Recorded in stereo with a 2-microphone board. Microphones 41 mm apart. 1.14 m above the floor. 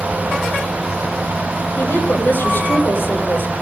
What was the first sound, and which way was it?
A woman speaking, 50° left (ahead or behind).